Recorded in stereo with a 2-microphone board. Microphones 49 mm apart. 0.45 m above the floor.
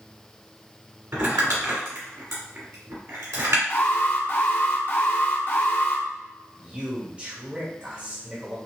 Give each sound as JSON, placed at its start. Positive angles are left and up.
{"t": 1.1, "sound": "crumpling", "side_deg": -80, "distance_m": 2.0}
{"t": 3.7, "sound": "an alarm", "side_deg": 50, "distance_m": 0.9}
{"t": 6.6, "sound": "a man speaking", "side_deg": -25, "distance_m": 1.4}